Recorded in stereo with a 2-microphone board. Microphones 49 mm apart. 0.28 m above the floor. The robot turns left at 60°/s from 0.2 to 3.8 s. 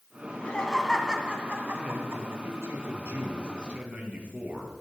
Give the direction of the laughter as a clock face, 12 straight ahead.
11 o'clock.